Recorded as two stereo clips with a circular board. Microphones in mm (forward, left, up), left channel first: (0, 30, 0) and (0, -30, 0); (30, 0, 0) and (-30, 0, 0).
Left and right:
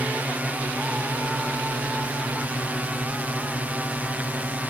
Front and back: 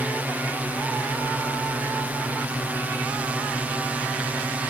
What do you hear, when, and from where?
0.0 s a drone: 135° right